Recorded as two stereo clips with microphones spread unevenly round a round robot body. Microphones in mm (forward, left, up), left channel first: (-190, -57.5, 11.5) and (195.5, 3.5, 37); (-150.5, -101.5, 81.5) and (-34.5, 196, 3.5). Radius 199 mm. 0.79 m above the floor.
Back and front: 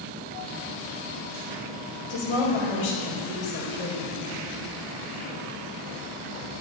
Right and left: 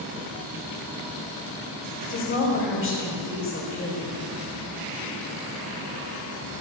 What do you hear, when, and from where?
2.1 s a woman speaking: 160° right, 4 m